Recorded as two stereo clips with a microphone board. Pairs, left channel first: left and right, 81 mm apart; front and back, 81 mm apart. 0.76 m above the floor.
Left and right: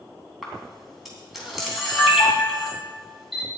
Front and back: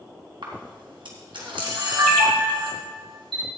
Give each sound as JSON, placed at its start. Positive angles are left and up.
{"t": 0.4, "sound": "a camera shutter", "azimuth_deg": -175, "distance_m": 3.5}